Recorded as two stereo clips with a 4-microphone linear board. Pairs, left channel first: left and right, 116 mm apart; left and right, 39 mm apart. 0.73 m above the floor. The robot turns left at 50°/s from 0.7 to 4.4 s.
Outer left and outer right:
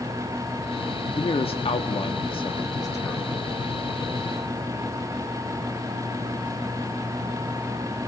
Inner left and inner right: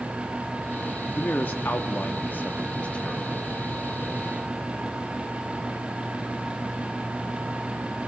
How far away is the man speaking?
About 1.3 m.